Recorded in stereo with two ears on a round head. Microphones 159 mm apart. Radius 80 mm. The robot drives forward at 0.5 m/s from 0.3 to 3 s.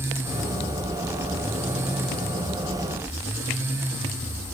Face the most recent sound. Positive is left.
No sound to turn to.